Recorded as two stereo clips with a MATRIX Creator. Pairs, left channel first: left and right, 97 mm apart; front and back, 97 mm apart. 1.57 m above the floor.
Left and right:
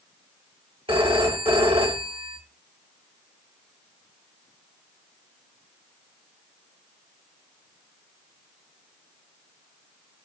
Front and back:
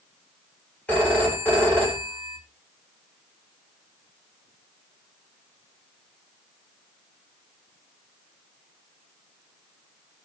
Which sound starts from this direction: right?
A phone ringing, at 0.9 s.